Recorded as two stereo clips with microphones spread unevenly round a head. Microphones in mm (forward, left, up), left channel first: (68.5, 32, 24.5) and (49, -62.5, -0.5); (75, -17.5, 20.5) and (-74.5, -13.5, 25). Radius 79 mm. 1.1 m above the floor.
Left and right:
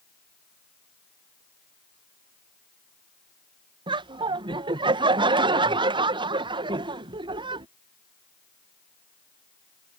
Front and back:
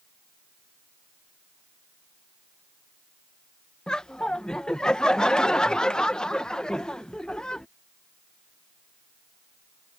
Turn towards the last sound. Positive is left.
turn(degrees=-85)